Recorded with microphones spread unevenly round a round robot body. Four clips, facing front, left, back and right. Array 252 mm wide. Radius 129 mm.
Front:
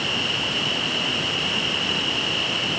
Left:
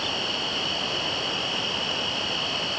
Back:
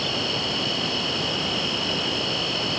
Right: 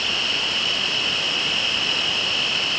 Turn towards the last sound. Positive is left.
turn(degrees=175)